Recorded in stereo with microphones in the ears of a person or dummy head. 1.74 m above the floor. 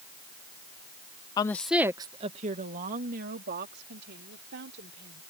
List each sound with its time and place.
1.4 s a woman speaking: 25° left (ahead or behind); by 5.2 s 65° right (ahead or behind)